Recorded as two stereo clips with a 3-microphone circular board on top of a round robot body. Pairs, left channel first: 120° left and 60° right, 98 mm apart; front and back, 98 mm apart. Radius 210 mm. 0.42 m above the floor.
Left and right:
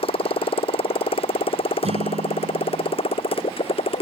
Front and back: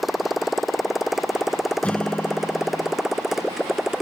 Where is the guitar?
80° right.